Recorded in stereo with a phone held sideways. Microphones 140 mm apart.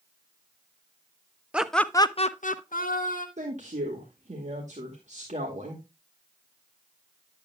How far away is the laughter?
About 0.8 m.